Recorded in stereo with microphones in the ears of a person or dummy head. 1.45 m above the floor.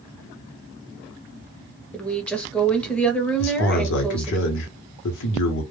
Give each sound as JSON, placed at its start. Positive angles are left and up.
{"t": 1.9, "sound": "a woman speaking", "side_deg": 5, "distance_m": 0.7}
{"t": 3.4, "sound": "a man speaking", "side_deg": 65, "distance_m": 0.8}